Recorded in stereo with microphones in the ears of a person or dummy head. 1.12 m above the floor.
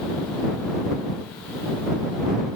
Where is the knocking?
No knocking in this recording.